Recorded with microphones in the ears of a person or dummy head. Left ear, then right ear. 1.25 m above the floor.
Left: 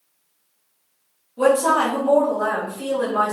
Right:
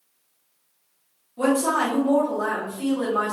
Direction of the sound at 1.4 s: Centre (ahead or behind).